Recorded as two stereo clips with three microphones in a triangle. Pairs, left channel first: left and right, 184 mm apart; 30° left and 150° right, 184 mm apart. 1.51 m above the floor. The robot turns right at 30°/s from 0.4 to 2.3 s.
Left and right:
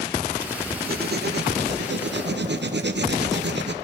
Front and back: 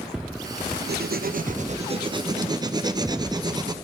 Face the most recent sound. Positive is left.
turn(degrees=-80)